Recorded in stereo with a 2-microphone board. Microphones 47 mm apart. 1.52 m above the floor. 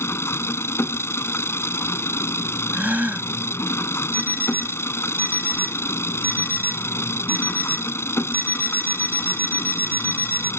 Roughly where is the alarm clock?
Right.